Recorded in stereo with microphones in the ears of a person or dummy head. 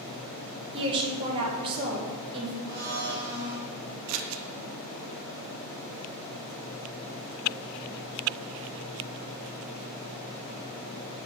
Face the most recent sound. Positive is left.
turn(degrees=-80)